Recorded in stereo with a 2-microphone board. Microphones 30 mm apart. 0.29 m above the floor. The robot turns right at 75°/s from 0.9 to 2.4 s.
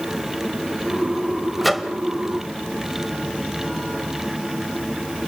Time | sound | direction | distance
1.6 | a microwave | centre (ahead or behind) | 1.3 m